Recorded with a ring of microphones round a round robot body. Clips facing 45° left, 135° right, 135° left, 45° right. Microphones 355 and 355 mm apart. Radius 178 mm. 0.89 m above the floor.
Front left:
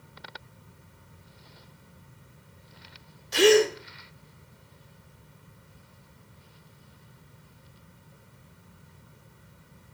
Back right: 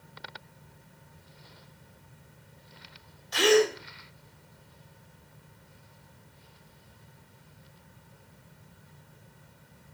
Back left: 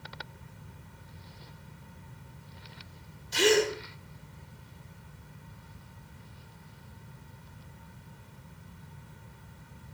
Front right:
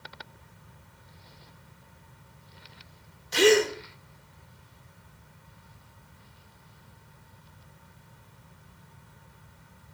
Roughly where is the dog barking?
No dog barking in this recording.